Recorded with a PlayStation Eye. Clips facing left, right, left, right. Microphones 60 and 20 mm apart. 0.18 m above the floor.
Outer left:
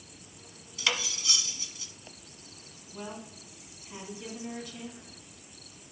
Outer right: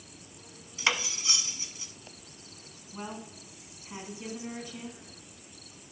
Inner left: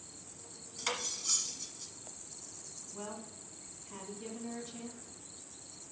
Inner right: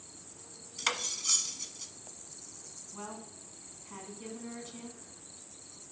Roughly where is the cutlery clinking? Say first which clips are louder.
Outer right 2 dB, inner right 4 dB; right.